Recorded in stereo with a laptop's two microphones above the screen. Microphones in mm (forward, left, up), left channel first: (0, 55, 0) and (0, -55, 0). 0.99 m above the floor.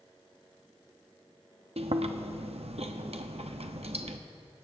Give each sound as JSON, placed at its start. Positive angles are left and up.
{"t": 1.8, "sound": "chewing", "side_deg": -70, "distance_m": 0.6}